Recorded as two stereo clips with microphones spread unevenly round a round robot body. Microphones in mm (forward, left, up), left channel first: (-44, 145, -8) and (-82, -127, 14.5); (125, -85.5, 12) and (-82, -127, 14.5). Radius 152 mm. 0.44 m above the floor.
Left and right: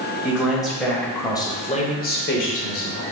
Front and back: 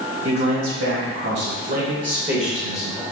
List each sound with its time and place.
0.2 s a man speaking: 175° left, 2 m; by 3.0 s 75° left, 1.3 m